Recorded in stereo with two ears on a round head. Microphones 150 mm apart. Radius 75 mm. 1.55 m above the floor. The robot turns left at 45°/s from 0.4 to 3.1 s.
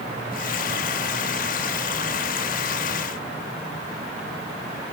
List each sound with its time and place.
Only background noise.